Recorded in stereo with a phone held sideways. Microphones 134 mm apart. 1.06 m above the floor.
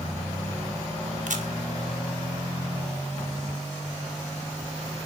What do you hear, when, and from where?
1.3 s a camera shutter: 70° right (ahead or behind), 0.9 m